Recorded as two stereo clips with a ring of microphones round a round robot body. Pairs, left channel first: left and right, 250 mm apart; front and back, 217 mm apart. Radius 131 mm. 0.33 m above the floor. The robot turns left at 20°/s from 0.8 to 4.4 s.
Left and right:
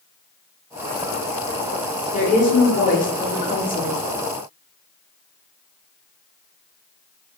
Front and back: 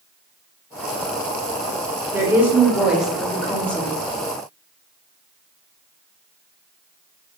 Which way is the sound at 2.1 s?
115° left.